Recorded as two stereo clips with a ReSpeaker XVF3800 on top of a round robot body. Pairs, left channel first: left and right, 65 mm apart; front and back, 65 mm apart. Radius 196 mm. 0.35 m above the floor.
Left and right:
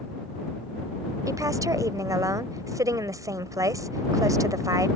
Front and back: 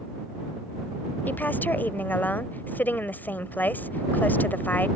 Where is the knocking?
No knocking in this recording.